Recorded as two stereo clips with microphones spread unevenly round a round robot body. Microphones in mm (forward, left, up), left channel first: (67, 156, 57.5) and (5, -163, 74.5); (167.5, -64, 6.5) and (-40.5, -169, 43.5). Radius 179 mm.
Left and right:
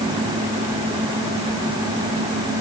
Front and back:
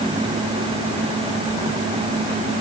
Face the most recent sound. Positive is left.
No sound to turn to.